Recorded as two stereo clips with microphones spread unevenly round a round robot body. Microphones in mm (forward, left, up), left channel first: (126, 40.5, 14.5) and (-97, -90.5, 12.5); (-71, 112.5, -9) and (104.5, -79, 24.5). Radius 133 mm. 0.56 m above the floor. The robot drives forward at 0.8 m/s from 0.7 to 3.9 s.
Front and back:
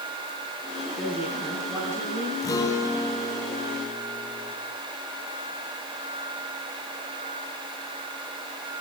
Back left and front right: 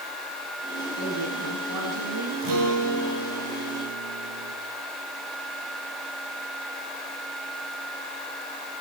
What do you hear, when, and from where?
1.0 s a woman speaking: 65° right, 7.5 m; by 2.3 s 70° right, 7.5 m
2.4 s a guitar: 45° right, 8 m; by 4.6 s 55° right, 7 m